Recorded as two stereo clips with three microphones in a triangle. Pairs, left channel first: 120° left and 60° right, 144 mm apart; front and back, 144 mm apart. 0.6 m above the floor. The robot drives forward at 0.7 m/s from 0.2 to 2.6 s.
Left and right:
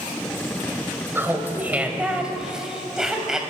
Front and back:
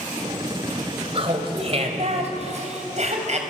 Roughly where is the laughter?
Behind right.